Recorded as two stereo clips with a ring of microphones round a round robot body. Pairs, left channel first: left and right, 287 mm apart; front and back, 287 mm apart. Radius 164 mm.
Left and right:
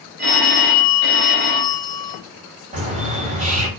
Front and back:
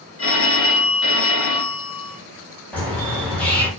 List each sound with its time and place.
0.2 s a phone ringing: 35° right, 1.2 m
2.7 s a bird: 80° right, 1.2 m